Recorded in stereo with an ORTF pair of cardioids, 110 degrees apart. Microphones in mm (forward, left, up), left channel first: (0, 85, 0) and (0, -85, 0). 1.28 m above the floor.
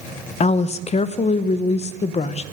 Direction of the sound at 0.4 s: 45° left.